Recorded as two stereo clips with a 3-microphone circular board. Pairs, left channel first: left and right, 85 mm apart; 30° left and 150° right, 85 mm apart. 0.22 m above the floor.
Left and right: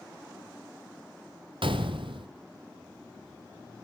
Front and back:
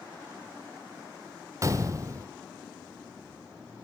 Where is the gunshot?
95° right, 1.2 m.